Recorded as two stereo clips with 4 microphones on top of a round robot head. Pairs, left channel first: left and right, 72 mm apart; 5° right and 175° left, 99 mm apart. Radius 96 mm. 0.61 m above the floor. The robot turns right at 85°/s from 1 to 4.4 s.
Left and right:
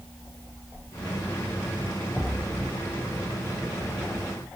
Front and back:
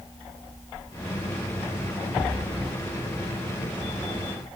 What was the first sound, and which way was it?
Only background noise.